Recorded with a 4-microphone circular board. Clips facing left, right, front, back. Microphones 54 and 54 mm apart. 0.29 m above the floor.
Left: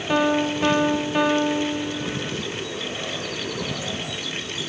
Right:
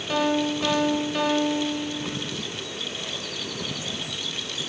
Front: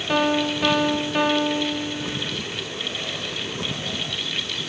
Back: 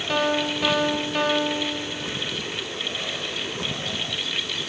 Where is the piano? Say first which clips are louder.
Left 3 dB, front 2 dB; 70° left, 1.4 m.